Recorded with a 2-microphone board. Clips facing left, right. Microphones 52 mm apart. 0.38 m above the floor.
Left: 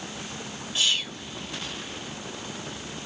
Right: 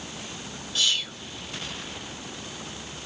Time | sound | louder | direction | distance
0.8 | whispering | even | 25° left (ahead or behind) | 1.2 m